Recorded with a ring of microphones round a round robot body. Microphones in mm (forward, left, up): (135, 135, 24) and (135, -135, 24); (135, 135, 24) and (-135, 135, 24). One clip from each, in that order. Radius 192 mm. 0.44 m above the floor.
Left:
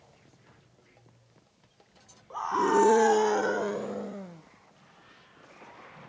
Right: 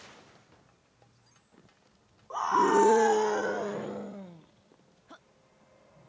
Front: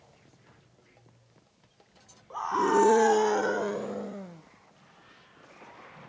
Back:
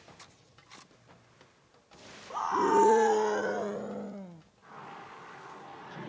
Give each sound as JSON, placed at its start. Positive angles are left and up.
{"t": 2.3, "sound": "a scream", "azimuth_deg": -105}